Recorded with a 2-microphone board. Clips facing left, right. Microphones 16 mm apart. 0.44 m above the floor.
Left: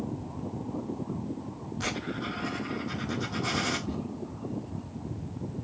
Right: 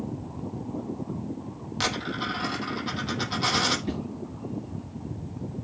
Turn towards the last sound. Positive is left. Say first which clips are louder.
# right 3 dB
turn(degrees=-50)  # may be behind; listen again after turning